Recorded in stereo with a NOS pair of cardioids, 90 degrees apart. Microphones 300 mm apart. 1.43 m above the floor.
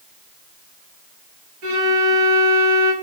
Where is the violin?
55° right, 1.7 m.